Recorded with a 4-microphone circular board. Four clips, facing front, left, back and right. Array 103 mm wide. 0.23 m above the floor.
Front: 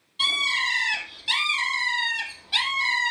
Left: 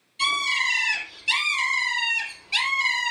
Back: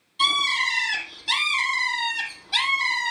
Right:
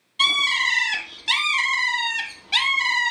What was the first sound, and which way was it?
A bird, 95° right.